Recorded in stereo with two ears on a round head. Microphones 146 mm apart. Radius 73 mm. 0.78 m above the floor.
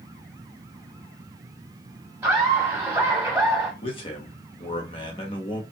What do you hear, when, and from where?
2.2 s laughter: 5° right (ahead or behind), 1.1 m
3.8 s a man speaking: 30° left (ahead or behind), 1.1 m